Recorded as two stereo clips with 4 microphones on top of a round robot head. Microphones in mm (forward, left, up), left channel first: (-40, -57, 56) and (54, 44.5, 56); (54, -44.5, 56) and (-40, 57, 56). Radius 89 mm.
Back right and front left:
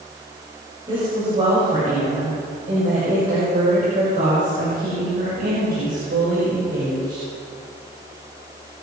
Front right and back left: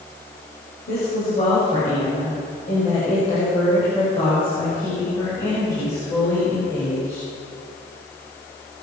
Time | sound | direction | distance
0.9 | a woman speaking | 10° right | 5.5 m